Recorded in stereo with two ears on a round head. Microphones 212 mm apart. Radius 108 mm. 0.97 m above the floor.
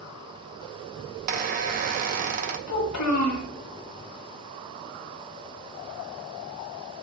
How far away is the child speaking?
About 1.8 m.